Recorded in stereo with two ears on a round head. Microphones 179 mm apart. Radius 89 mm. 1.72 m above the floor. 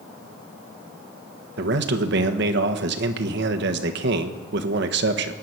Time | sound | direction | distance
1.6 | a man speaking | 60° right (ahead or behind) | 1.3 m